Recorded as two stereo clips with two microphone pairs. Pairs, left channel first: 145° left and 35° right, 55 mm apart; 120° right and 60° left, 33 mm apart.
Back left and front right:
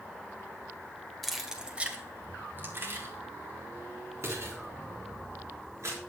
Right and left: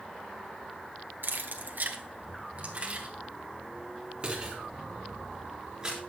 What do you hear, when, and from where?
1.2 s keys jangling: 55° left, 1.5 m; by 6.0 s 10° right, 6 m